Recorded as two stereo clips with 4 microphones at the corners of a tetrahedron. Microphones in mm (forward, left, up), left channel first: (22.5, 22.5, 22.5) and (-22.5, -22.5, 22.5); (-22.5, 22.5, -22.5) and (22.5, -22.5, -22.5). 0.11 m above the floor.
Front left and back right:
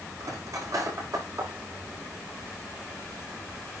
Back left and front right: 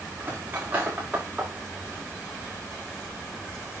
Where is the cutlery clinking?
105° right, 5.5 m.